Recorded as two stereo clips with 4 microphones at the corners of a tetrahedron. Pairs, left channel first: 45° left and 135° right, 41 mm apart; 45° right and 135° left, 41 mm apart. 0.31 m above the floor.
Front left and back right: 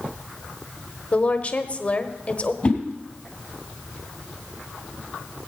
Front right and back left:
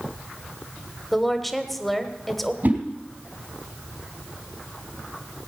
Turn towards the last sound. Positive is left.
turn(degrees=115)